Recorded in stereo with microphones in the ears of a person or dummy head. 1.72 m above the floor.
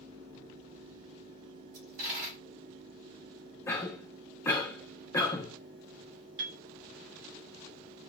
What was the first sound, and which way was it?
A dropped coin, 55° right (ahead or behind).